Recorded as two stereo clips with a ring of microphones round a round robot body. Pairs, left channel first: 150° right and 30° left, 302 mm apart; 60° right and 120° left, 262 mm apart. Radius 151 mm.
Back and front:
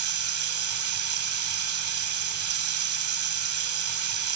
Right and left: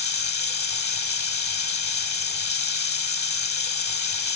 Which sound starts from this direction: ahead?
Running water, at 0.0 s.